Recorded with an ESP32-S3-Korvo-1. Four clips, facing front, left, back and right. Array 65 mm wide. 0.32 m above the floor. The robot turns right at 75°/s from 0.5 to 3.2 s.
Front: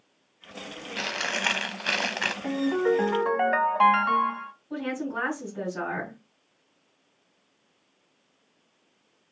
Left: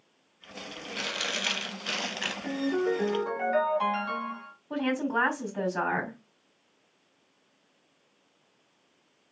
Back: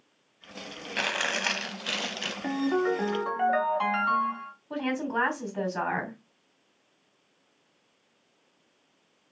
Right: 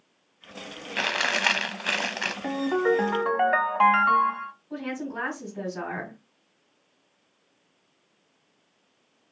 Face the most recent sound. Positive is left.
turn(degrees=135)